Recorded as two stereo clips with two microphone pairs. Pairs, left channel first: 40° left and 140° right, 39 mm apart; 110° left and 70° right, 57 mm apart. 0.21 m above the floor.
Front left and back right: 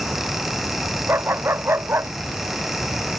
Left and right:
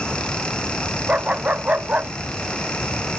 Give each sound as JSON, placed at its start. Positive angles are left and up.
{"t": 1.1, "sound": "a dog barking", "azimuth_deg": -135}